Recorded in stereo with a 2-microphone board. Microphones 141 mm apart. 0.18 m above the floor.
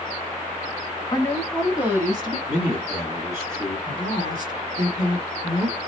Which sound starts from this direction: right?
A woman speaking, at 3.9 s.